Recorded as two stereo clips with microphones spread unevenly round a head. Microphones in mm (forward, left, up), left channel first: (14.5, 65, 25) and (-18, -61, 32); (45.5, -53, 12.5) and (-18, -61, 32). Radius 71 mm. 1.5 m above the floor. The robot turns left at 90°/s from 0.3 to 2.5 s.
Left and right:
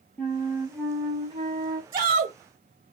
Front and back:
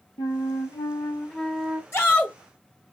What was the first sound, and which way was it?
A flute, straight ahead.